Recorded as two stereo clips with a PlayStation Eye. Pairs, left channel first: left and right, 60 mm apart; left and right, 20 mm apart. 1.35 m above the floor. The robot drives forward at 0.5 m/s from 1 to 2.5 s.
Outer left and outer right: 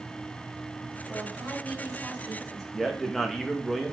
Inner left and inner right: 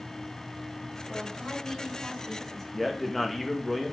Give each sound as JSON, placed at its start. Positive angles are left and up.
{"t": 1.1, "sound": "a woman speaking", "side_deg": 0, "distance_m": 5.5}
{"t": 2.7, "sound": "a man speaking", "side_deg": 5, "distance_m": 1.6}